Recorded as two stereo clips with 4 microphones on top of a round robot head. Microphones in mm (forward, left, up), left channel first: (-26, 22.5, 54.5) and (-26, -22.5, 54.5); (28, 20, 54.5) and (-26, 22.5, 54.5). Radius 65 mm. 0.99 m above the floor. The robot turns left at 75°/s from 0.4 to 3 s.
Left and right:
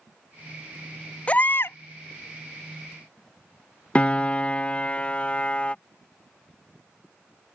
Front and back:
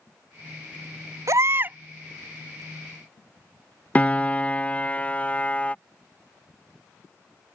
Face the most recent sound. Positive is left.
turn(degrees=45)